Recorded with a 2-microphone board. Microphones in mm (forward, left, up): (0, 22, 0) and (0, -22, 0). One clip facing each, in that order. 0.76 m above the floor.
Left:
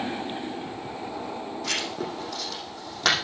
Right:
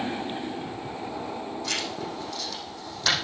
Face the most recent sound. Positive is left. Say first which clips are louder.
# left 3 dB
turn(degrees=80)